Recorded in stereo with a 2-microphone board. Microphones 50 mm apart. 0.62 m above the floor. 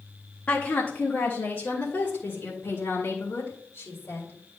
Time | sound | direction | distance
0.5 | a woman speaking | 40° left (ahead or behind) | 1.5 m